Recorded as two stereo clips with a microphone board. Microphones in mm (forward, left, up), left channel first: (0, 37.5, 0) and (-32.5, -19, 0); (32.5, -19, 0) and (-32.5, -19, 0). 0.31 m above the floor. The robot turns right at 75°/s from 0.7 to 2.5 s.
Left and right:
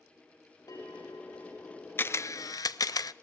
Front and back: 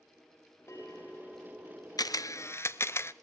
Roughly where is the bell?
Ahead left.